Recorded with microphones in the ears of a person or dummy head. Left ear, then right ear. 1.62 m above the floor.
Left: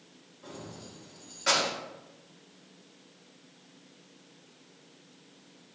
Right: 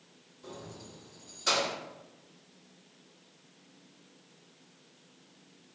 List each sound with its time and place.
0.4 s keys jangling: 15° left (ahead or behind), 0.8 m